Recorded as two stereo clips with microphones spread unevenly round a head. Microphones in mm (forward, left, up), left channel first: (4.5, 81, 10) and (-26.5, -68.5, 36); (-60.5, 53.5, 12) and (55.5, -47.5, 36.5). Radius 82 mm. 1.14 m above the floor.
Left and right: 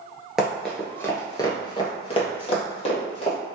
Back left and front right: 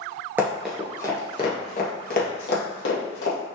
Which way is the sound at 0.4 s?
50° right.